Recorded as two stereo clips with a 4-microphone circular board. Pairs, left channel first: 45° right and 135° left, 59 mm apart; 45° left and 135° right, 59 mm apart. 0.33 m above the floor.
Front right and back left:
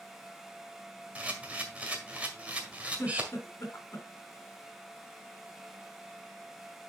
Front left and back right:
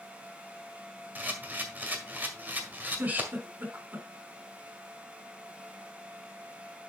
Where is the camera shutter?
175° right, 1.7 m.